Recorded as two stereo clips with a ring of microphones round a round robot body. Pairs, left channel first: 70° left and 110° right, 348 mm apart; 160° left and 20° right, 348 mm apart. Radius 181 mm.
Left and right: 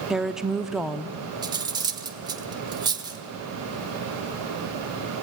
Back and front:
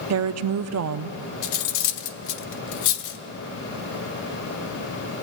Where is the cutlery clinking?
170° left, 1.0 m.